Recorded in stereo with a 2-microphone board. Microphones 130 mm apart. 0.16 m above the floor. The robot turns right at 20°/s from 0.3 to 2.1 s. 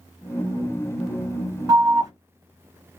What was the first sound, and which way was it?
An alarm, 30° right (ahead or behind).